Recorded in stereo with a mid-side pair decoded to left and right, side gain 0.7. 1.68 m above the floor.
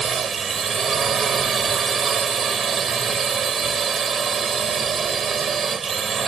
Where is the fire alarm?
No fire alarm in this recording.